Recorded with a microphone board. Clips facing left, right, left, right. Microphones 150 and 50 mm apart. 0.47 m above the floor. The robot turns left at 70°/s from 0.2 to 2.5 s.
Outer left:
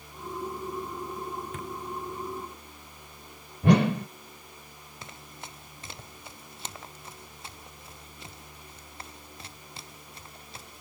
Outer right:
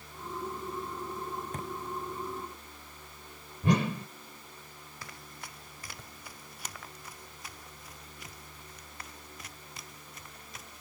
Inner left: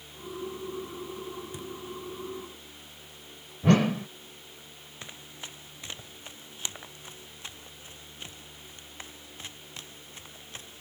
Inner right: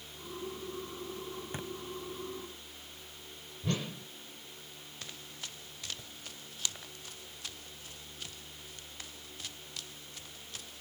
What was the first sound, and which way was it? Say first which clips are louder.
A thud: outer left 1 dB, inner left 1 dB; 40° right (ahead or behind).